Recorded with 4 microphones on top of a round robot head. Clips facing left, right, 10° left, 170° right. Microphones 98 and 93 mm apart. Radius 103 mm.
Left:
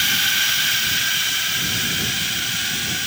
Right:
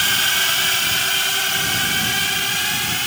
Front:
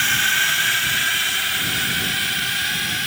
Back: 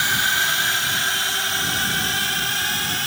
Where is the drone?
100° right; by 3.1 s 120° right.